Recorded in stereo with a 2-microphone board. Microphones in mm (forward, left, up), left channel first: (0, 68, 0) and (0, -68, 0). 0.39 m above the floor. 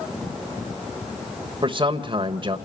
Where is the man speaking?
40° right (ahead or behind), 1.2 m.